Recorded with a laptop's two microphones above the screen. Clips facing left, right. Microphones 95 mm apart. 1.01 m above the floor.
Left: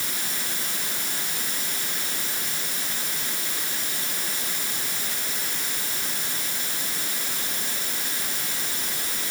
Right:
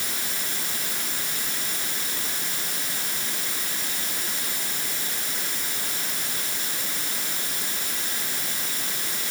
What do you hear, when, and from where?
Only background noise.